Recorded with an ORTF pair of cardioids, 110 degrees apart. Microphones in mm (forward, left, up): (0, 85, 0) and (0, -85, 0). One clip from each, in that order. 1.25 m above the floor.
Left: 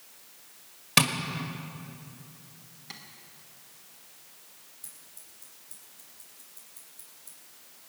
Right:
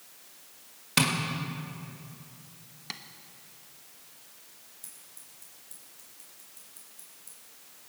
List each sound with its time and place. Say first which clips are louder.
1.0 s tapping: left 3 dB; 25° left, 1.6 m
2.9 s tapping: right 5 dB; 45° right, 1.2 m
4.8 s scissors: even; 5° right, 5.5 m